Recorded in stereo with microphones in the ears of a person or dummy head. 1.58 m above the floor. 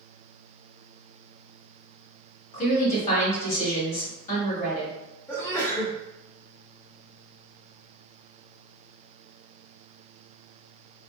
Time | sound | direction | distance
2.5 | a woman speaking | 45° left (ahead or behind) | 1.9 m
5.3 | a sneeze | 15° left (ahead or behind) | 1.0 m